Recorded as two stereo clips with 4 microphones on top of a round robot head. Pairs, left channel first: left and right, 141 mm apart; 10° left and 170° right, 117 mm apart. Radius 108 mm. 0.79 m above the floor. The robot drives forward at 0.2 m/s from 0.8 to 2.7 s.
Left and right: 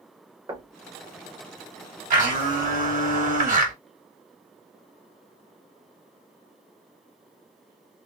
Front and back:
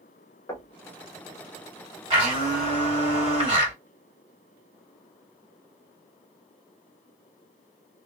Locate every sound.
0.5 s knocking: 40° right, 0.9 m
2.1 s a blender: 120° right, 2.0 m; by 3.8 s 125° right, 2 m